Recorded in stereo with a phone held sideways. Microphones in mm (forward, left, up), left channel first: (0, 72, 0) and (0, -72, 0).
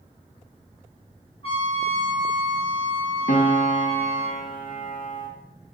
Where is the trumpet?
40° left (ahead or behind), 4 m.